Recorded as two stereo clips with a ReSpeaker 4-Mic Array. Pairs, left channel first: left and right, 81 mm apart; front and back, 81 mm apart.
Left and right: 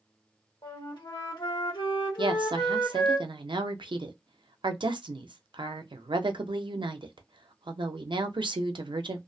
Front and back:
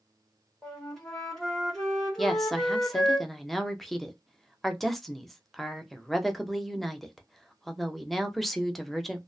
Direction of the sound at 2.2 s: 90° right.